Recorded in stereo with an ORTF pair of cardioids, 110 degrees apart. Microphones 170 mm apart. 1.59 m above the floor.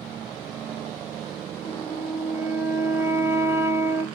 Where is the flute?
15° right, 0.7 m.